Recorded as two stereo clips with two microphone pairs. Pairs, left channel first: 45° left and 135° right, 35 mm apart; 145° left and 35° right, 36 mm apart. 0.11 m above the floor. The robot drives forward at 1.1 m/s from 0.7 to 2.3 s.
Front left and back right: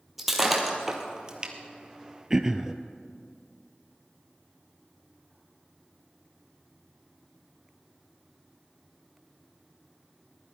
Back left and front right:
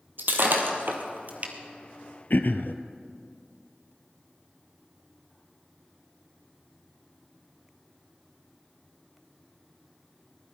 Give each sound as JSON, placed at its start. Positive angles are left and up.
{"t": 0.2, "sound": "breaking glass", "azimuth_deg": -50, "distance_m": 2.0}
{"t": 2.3, "sound": "throat clearing", "azimuth_deg": 150, "distance_m": 0.8}